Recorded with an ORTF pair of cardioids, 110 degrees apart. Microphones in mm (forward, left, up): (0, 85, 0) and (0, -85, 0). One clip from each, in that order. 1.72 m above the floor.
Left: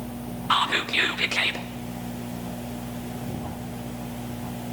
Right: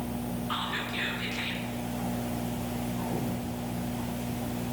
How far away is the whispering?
About 0.5 m.